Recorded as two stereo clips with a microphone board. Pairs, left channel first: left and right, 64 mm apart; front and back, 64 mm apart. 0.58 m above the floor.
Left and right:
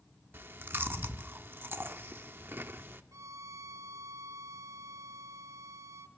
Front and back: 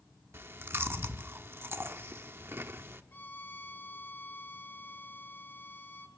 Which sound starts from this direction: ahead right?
A violin, at 3.1 s.